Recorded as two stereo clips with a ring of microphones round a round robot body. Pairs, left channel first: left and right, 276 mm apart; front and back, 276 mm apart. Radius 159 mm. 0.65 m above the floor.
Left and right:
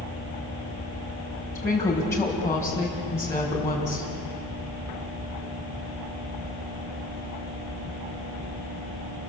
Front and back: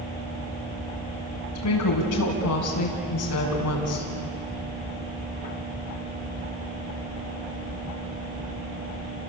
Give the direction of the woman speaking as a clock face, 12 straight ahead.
12 o'clock.